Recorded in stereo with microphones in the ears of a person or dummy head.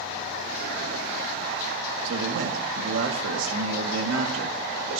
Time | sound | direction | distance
2.0 | a man speaking | 80° right | 2.5 m